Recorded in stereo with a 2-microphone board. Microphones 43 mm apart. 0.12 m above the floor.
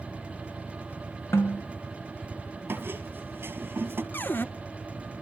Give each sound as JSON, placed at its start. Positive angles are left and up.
{"t": 1.3, "sound": "a snare drum", "side_deg": 80, "distance_m": 4.0}
{"t": 2.7, "sound": "a squeak", "side_deg": -60, "distance_m": 1.7}
{"t": 4.1, "sound": "a cupboard door", "side_deg": 50, "distance_m": 0.5}